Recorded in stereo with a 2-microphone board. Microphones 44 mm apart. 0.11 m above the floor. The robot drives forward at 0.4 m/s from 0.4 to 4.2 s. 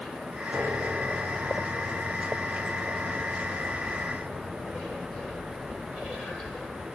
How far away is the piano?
About 6 m.